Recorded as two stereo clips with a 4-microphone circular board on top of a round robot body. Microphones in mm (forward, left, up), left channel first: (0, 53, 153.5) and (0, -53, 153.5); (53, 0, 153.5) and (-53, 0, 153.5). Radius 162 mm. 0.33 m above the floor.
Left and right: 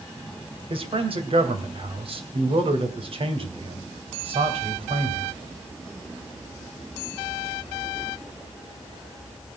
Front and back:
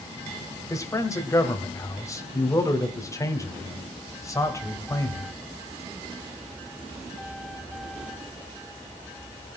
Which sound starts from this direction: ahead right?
A man speaking, at 0.7 s.